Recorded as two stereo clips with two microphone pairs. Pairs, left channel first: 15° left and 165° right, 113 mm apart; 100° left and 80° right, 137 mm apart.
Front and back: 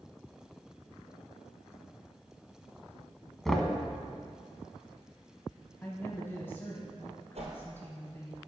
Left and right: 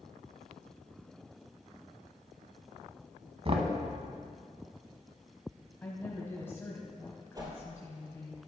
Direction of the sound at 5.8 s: 55° left.